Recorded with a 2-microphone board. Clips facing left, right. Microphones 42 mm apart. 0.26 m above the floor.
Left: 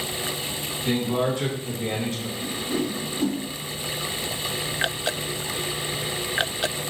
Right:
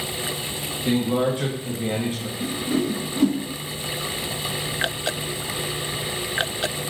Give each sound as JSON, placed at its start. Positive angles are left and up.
{"t": 0.8, "sound": "a man speaking", "side_deg": -20, "distance_m": 1.3}
{"t": 2.4, "sound": "a whoosh", "side_deg": -55, "distance_m": 1.0}